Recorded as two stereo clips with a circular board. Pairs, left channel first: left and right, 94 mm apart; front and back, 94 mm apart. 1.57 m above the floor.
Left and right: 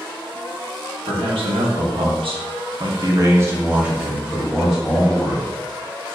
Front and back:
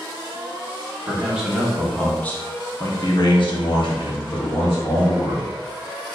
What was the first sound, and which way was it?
A man speaking, 105° right.